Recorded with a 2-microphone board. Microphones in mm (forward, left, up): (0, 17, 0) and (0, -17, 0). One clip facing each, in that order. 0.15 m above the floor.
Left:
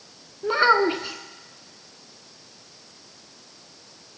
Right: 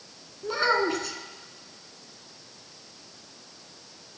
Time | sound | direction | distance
0.4 | a child speaking | 40° left (ahead or behind) | 0.8 m